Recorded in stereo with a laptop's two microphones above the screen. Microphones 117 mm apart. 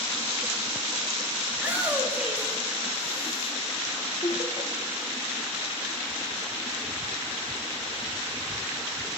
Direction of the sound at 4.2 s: 50° left (ahead or behind).